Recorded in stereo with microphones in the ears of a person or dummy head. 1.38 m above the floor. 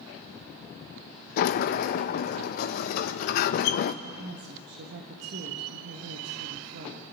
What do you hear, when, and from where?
1.4 s a sliding door: 50° left (ahead or behind), 0.7 m
4.0 s a woman speaking: 70° right (ahead or behind), 1.4 m